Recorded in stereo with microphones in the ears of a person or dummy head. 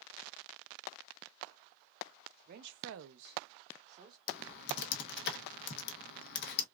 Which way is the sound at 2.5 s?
45° right (ahead or behind).